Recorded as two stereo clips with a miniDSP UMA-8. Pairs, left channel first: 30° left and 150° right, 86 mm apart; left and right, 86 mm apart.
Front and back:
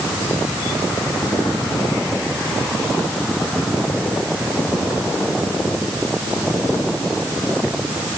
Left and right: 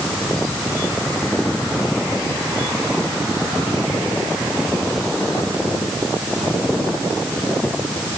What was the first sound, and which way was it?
Only background noise.